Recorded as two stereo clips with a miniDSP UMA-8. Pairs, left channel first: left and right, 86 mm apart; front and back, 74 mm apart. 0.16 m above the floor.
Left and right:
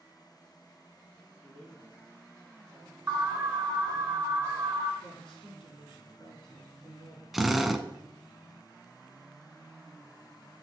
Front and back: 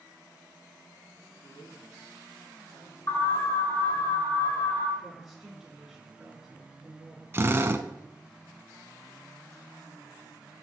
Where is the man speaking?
10° left, 4 m.